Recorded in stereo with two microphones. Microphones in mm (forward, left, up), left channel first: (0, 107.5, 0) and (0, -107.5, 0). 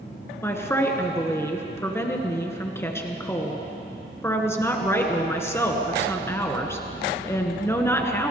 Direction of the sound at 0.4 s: 10° left (ahead or behind).